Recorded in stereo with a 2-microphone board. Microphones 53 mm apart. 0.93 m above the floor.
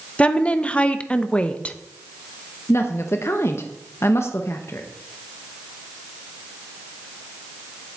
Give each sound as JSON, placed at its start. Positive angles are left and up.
{"t": 0.2, "sound": "a woman speaking", "side_deg": 20, "distance_m": 0.6}
{"t": 2.7, "sound": "a woman speaking", "side_deg": 50, "distance_m": 0.7}